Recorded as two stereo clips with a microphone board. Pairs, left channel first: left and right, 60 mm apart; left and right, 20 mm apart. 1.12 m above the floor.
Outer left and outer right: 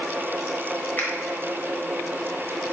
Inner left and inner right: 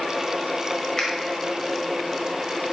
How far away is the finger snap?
About 1.0 m.